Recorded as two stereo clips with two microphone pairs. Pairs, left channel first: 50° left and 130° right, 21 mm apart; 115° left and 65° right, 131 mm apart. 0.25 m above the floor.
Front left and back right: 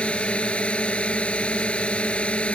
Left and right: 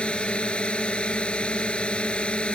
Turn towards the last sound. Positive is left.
turn(degrees=35)